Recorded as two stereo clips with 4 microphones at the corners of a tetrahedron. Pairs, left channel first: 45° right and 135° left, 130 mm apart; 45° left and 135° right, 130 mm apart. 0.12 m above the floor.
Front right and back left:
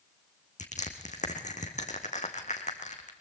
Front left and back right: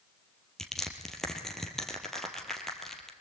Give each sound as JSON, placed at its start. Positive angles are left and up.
{"t": 0.6, "sound": "crushing", "azimuth_deg": -40, "distance_m": 3.0}